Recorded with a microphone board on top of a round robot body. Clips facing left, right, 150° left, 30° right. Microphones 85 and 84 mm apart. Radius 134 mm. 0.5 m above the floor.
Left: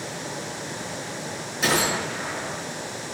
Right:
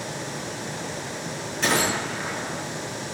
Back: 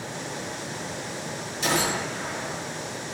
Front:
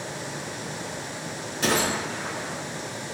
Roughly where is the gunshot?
Ahead.